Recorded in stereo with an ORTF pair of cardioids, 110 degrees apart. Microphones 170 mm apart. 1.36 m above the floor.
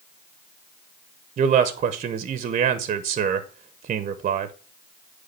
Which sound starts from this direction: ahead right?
A man speaking, at 1.4 s.